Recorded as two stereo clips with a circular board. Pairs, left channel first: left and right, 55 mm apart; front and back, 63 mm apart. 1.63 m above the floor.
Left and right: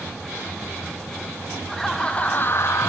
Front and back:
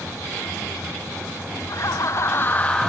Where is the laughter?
Straight ahead, 0.9 m; by 2.9 s 80° left, 0.8 m.